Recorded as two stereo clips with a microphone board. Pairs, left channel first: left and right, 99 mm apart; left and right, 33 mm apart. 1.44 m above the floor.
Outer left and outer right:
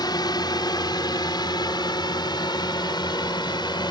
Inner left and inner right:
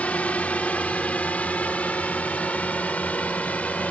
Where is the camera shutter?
No camera shutter in this recording.